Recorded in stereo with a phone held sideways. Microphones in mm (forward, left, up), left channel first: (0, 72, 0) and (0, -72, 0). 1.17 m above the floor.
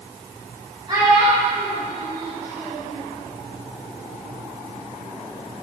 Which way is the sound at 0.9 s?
35° right (ahead or behind).